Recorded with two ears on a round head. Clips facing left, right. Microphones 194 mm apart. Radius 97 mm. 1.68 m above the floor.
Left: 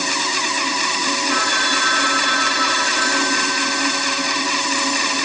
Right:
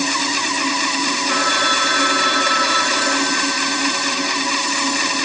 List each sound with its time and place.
1.3 s a phone ringing: 55° right (ahead or behind), 3.5 m